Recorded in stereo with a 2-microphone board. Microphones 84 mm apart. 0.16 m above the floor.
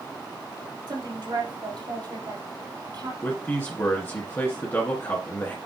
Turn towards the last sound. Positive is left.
turn(degrees=25)  # may be behind; listen again after turning